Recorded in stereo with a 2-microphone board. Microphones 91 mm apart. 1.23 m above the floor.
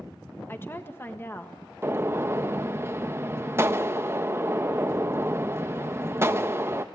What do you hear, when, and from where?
0.5 s a woman speaking: 25° left (ahead or behind), 1.7 m
1.8 s a gunshot: 30° right (ahead or behind), 0.7 m